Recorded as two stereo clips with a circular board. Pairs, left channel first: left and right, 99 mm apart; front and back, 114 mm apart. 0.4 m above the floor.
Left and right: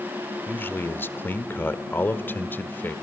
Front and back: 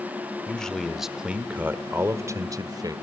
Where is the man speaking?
65° left, 1.3 m; by 2.9 s 150° left, 1.7 m.